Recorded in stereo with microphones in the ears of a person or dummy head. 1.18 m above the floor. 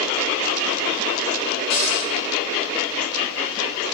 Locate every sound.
1.7 s a cupboard door: 80° left, 6 m